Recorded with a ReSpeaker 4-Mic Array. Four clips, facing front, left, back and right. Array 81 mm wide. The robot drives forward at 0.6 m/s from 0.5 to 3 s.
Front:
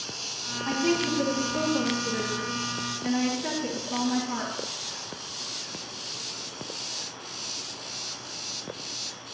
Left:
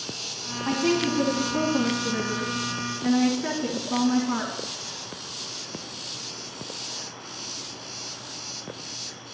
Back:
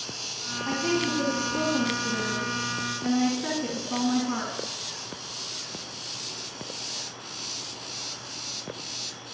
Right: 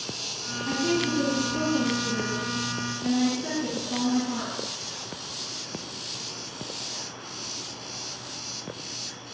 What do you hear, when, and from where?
0.7 s a woman speaking: 85° left, 2.5 m; by 4.7 s 115° left, 2.5 m